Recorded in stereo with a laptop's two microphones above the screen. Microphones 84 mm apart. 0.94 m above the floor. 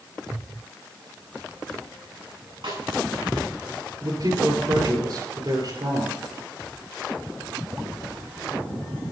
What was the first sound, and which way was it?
A snare drum, 80° right.